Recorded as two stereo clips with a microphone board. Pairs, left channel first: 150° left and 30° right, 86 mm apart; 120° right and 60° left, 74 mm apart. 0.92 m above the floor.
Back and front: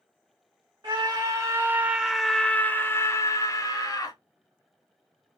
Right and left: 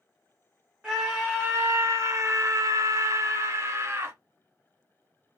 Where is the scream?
10° right, 0.9 m; by 4.2 s 115° left, 1.4 m.